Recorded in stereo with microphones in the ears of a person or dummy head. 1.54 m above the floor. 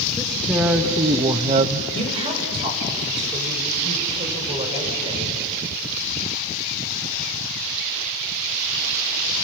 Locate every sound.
0.2 s a man speaking: 5° left (ahead or behind), 1.2 m; by 1.8 s 45° right (ahead or behind), 0.6 m
1.9 s a woman speaking: 30° right (ahead or behind), 5.5 m